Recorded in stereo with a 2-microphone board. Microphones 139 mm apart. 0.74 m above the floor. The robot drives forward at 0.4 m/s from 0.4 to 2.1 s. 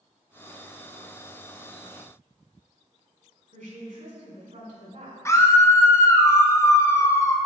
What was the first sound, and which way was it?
A woman speaking, 80° right.